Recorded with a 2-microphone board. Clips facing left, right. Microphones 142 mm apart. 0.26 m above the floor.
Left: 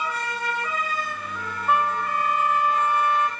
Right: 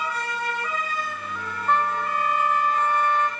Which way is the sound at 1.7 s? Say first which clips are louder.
Even; 10° left (ahead or behind).